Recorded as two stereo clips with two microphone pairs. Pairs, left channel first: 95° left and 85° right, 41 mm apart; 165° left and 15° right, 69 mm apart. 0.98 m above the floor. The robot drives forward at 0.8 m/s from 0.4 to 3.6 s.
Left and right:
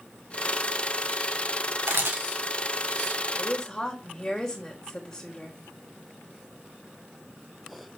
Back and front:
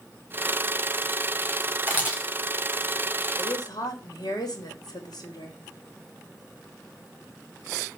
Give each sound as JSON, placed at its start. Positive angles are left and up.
{"t": 1.9, "sound": "a camera shutter", "azimuth_deg": -75, "distance_m": 3.0}
{"t": 3.3, "sound": "a woman speaking", "azimuth_deg": 175, "distance_m": 3.0}